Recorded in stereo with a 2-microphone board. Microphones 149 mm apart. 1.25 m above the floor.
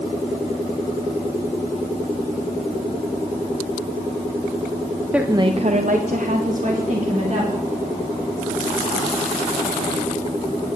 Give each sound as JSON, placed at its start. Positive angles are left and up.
{"t": 5.1, "sound": "a woman speaking", "side_deg": -5, "distance_m": 0.8}